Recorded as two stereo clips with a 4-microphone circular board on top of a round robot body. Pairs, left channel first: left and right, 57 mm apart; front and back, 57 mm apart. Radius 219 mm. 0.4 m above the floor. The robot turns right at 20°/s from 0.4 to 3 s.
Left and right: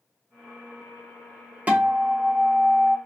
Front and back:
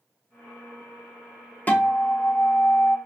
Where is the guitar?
40° right, 1.0 m; by 3.0 s 15° right, 1.0 m.